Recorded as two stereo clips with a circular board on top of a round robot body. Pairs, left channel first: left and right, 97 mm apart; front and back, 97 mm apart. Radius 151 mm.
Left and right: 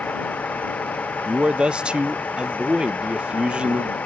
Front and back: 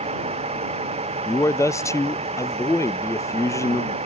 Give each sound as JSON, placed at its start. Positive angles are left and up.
{"t": 0.0, "sound": "a vehicle", "azimuth_deg": 165}
{"t": 1.2, "sound": "a man speaking", "azimuth_deg": -20}